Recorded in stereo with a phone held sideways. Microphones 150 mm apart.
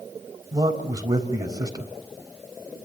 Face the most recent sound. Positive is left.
turn(degrees=-25)  # may be behind; listen again after turning